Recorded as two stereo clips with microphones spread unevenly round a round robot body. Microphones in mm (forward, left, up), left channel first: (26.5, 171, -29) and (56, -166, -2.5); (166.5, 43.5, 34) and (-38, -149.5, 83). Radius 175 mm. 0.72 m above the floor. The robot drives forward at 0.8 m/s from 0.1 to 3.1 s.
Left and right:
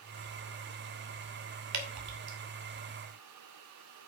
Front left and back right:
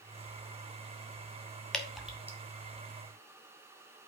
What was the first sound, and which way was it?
Dripping, 40° right.